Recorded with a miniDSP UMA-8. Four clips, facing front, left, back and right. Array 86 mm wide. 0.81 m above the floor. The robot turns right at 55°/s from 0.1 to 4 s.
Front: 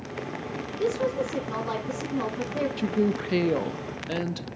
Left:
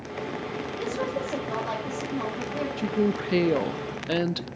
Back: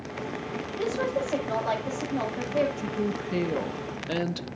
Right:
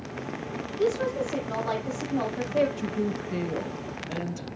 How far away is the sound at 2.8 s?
About 0.6 m.